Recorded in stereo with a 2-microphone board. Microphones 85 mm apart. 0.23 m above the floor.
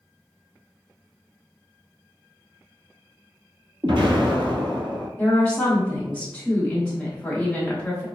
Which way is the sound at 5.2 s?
15° left (ahead or behind).